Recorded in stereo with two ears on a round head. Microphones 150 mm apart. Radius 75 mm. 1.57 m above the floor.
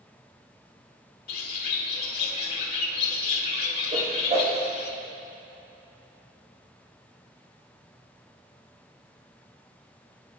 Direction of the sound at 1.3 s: 60° left (ahead or behind).